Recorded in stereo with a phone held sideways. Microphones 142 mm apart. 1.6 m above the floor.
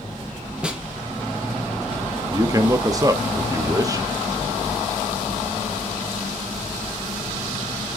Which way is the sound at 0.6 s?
5° right (ahead or behind).